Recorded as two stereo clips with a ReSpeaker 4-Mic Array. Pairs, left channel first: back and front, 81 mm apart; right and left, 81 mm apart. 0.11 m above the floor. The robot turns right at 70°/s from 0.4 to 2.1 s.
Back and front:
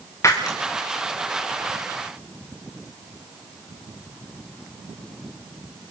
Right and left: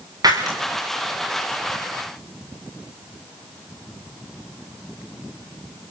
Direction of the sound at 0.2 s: 125° left.